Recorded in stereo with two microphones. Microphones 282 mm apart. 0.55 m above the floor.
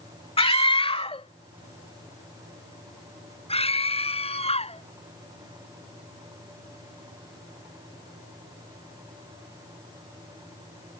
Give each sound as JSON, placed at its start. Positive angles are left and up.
{"t": 0.4, "sound": "a scream", "side_deg": 20}